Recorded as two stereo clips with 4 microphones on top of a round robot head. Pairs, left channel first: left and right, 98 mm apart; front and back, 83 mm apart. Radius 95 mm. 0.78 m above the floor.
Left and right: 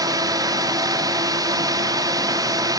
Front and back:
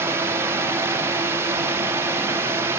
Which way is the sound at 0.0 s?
130° right.